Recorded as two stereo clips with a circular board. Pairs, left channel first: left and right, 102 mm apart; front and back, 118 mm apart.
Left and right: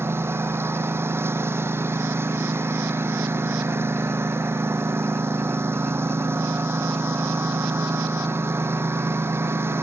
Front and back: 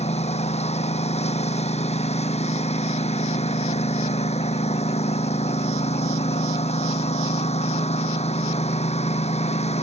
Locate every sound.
0.0 s a lawn mower: 25° right